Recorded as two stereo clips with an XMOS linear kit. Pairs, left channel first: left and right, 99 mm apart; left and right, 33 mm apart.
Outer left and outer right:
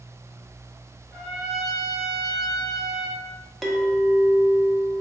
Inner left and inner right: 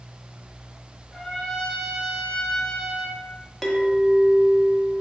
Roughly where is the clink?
Centre.